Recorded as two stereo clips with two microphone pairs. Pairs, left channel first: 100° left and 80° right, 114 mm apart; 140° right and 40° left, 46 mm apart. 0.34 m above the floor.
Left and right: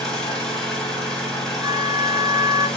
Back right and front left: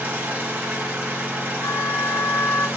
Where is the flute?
155° right, 0.7 m.